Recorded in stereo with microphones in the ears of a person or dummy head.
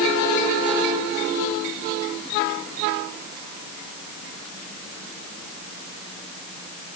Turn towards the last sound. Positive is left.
No sound to turn to.